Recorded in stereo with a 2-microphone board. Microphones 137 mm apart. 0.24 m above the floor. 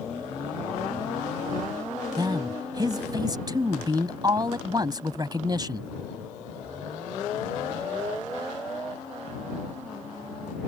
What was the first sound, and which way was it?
A man speaking, 30° right (ahead or behind).